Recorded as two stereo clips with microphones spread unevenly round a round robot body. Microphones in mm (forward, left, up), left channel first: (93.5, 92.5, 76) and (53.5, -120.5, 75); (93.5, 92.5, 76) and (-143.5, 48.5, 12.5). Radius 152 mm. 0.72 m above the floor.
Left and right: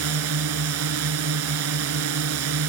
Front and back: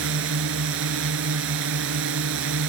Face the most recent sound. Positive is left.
turn(degrees=-125)